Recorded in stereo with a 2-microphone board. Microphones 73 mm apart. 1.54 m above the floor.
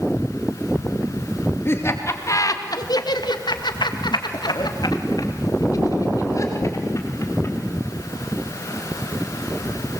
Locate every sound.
1.6 s laughter: 35° left (ahead or behind), 3 m; by 7.5 s 40° left (ahead or behind), 5.5 m